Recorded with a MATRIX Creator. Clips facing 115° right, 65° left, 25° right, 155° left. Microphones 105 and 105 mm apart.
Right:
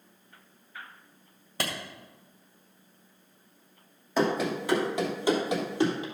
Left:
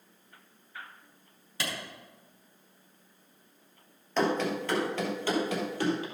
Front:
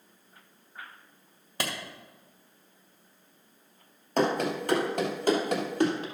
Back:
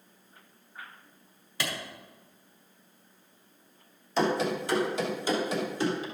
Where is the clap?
70° right, 2 m.